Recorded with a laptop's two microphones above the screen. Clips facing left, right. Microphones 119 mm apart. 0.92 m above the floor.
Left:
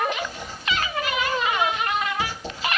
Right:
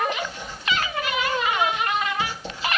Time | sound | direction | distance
0.2 | writing | 40° left (ahead or behind) | 1.9 m